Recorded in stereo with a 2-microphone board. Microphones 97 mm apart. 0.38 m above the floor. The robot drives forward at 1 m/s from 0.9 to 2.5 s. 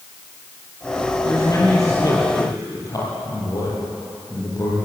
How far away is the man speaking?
About 9 m.